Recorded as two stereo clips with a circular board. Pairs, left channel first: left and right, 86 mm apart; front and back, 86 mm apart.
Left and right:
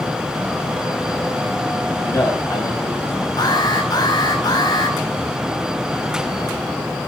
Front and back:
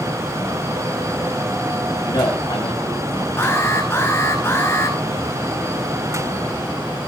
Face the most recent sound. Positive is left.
turn(degrees=60)